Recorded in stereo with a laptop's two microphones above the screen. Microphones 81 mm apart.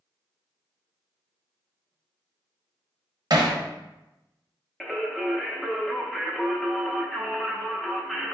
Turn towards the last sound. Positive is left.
turn(degrees=0)  # may be behind; listen again after turning